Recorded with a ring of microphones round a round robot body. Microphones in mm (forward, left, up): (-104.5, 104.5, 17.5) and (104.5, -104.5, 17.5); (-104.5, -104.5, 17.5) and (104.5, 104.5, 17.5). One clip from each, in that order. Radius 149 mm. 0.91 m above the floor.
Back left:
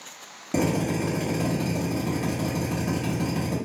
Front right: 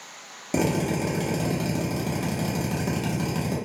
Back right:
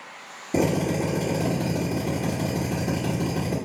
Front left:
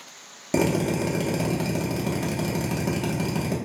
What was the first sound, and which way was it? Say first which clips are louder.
A drill: even, even; 25° left.